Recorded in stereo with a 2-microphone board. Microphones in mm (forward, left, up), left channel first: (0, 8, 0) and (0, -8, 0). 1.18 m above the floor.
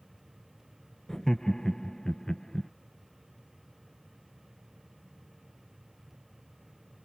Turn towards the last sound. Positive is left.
turn(degrees=25)  # may be behind; listen again after turning